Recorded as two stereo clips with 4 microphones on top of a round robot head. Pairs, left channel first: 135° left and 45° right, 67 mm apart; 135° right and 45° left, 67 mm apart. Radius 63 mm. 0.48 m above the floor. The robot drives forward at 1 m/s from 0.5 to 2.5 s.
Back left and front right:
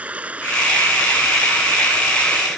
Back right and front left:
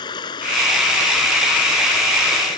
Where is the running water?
120° right; by 2.6 s 130° right.